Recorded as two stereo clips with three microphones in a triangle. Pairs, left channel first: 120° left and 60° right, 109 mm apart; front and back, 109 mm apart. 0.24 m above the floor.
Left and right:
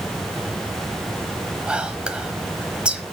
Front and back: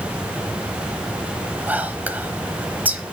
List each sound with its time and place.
1.7 s whispering: 125° right, 1.0 m